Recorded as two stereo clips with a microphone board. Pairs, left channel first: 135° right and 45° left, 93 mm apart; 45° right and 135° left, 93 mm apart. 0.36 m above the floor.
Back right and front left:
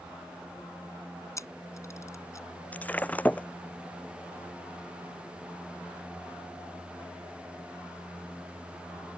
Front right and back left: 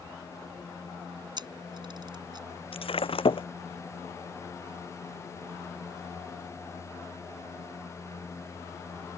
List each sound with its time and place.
1.4 s a camera shutter: 170° left
2.7 s breaking glass: 60° right